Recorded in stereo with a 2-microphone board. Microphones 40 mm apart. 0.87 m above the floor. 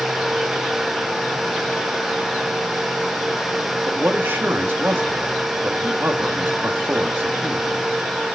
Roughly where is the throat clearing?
I don't hear throat clearing.